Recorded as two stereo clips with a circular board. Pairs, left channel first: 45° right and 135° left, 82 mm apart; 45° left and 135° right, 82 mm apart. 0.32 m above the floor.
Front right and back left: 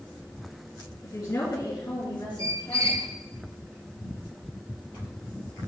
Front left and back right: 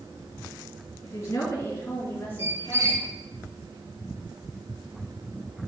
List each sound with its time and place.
1.0 s a woman speaking: 5° right, 3.5 m; by 3.0 s 25° right, 3.5 m
2.4 s a squeak: 175° left, 1.2 m